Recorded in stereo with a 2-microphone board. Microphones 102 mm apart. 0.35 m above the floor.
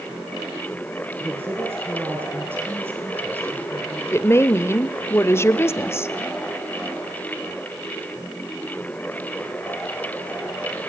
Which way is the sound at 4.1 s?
25° left (ahead or behind).